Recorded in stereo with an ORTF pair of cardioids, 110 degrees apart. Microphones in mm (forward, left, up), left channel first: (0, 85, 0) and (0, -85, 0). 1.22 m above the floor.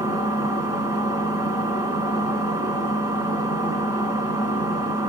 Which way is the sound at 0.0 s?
20° right.